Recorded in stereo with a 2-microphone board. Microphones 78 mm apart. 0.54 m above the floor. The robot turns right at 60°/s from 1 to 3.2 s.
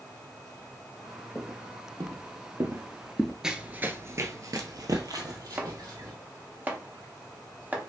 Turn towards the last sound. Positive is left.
turn(degrees=-25)  # may be behind; listen again after turning